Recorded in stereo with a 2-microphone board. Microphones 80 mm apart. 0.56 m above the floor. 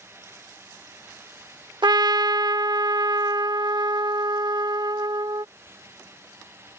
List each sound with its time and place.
1.8 s a trumpet: 70° right (ahead or behind)